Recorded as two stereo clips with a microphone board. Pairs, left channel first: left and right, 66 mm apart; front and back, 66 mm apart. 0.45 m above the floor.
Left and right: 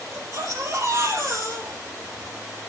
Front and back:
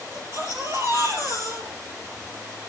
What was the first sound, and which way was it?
A baby crying, 135° right.